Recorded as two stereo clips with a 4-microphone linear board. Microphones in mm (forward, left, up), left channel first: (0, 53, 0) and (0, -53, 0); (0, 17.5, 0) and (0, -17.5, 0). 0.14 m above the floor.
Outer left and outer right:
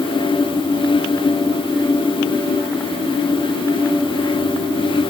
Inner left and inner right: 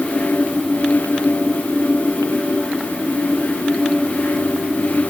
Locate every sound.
Only background noise.